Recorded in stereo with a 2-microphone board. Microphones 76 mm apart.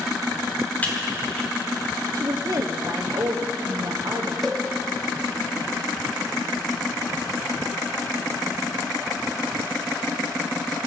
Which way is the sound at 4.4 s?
Centre (ahead or behind).